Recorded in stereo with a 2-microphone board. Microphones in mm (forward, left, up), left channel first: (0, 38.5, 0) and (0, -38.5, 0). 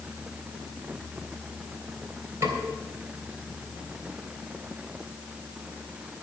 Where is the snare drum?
45° right (ahead or behind), 3 m.